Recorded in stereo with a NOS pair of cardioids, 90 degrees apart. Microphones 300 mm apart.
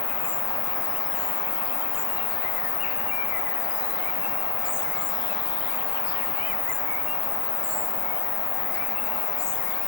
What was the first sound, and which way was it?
An insect, 40° left.